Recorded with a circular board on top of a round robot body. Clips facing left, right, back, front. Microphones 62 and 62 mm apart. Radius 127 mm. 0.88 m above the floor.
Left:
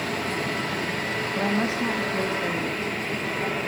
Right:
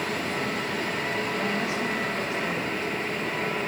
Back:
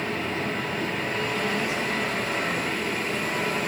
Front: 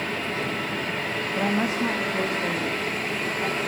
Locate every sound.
1.4 s a woman speaking: 30° left, 1.6 m; by 3.6 s 35° left, 3 m